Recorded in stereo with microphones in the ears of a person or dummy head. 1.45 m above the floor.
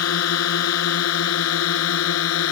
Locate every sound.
0.0 s a drone: 90° left; by 2.5 s 85° left